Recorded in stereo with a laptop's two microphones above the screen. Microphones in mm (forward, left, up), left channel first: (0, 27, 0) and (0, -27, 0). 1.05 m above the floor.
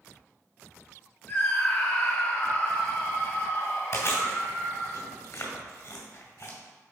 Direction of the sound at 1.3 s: 35° left (ahead or behind).